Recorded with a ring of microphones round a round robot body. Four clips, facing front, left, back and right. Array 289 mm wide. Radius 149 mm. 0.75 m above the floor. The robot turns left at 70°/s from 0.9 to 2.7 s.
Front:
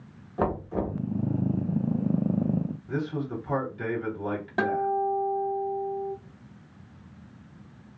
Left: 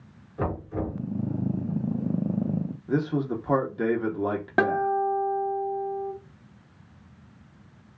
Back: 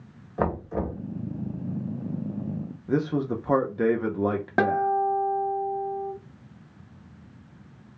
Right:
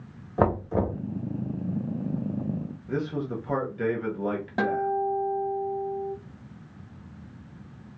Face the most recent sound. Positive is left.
turn(degrees=140)